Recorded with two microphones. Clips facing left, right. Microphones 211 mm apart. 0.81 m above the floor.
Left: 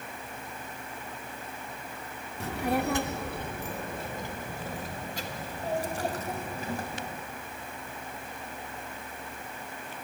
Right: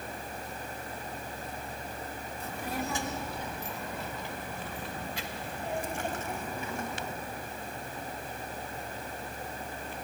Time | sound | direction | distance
2.4 | a child speaking | 75° left (ahead or behind) | 1.2 m